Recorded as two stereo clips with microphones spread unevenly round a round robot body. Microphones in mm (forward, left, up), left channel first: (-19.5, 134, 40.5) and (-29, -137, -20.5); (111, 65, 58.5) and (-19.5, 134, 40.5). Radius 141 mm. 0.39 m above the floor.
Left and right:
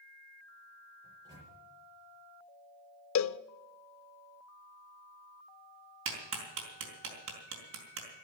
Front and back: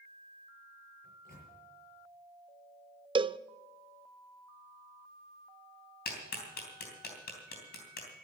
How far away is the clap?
About 3.5 m.